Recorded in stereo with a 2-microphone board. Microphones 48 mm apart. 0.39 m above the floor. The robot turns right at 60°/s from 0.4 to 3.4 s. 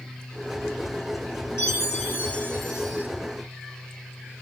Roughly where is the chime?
Left.